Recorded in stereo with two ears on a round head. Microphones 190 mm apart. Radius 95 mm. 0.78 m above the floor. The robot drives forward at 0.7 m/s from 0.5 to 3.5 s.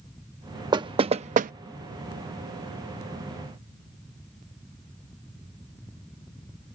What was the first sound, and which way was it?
Knocking, 20° right (ahead or behind).